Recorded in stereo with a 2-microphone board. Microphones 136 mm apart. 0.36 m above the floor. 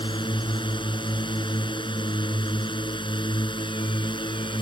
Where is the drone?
35° left (ahead or behind).